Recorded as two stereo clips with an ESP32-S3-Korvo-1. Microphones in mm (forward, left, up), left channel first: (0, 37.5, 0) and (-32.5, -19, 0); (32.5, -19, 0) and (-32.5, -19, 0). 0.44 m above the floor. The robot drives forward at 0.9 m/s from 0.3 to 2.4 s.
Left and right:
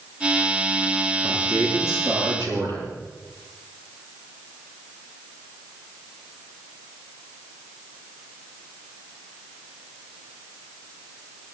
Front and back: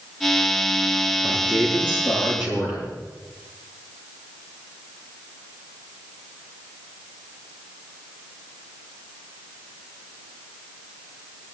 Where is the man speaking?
110° right, 7.5 m; by 2.9 s 120° right, 8 m.